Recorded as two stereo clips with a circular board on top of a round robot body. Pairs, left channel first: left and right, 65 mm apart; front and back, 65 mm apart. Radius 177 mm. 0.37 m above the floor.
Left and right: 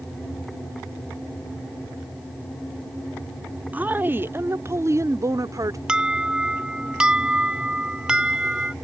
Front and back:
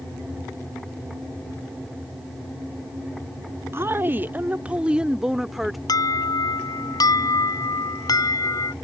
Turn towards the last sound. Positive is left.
turn(degrees=-15)